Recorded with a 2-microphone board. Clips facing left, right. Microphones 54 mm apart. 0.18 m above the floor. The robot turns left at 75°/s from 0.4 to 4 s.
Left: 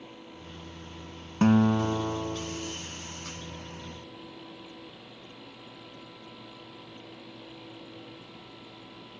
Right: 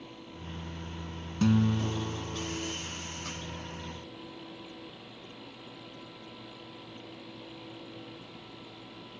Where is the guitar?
120° left; by 2.8 s 20° left.